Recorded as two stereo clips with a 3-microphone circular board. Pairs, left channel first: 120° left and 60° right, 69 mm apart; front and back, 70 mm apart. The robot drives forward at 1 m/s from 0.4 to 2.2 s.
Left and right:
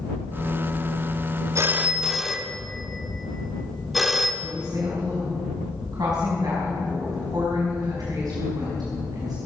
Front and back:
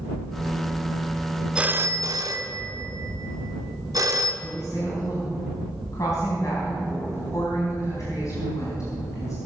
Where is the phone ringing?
100° right, 0.5 m; by 4.3 s 150° right, 0.9 m.